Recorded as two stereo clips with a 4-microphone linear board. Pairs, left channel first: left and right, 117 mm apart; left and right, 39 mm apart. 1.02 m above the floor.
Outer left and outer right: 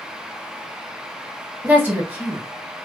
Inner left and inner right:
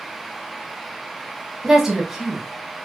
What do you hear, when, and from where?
1.6 s a woman speaking: 15° right (ahead or behind), 0.9 m